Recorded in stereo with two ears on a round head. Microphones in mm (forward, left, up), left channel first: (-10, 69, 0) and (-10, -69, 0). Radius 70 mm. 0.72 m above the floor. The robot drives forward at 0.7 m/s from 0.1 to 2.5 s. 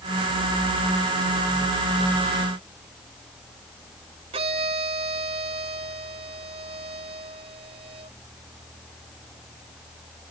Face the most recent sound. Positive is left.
turn(degrees=-40)  # may be behind; listen again after turning